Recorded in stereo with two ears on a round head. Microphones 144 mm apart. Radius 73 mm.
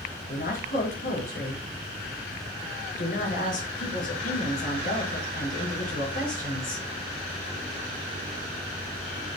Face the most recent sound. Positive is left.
turn(degrees=55)  # may be behind; listen again after turning